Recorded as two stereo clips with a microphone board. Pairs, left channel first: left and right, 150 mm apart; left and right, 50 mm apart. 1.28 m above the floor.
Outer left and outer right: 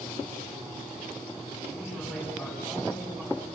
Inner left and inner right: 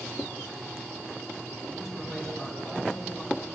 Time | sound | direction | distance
1.7 | a man speaking | centre (ahead or behind) | 9 m